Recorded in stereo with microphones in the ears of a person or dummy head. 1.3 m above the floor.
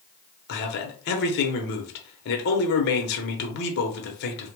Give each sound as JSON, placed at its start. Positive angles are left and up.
{"t": 0.5, "sound": "a man speaking", "side_deg": 55, "distance_m": 1.0}